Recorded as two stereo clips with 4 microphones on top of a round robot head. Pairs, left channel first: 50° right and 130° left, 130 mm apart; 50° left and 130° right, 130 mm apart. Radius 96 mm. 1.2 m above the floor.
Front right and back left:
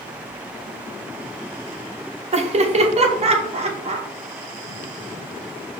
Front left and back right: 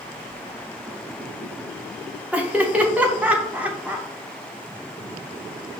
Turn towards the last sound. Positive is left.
turn(degrees=150)